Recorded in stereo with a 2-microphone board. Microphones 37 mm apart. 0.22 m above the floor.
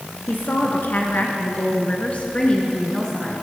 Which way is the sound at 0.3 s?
70° left (ahead or behind).